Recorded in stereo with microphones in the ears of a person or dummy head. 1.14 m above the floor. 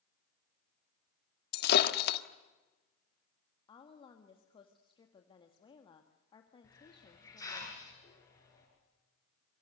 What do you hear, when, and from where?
1.5 s breaking glass: 65° left (ahead or behind), 1.5 m
3.7 s a woman speaking: 25° left (ahead or behind), 1.8 m
6.6 s a hiss: 20° left (ahead or behind), 8.5 m